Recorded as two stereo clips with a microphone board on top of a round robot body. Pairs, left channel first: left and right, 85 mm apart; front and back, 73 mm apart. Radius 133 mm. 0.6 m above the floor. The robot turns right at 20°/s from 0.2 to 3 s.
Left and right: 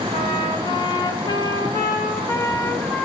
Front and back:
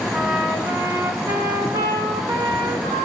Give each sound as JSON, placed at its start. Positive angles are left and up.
{"t": 0.1, "sound": "a trumpet", "azimuth_deg": 105, "distance_m": 1.4}